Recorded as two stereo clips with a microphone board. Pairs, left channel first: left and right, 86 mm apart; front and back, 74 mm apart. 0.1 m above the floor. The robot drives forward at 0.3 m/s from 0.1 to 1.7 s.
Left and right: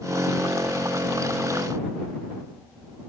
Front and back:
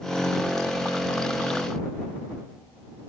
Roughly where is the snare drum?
I don't hear a snare drum.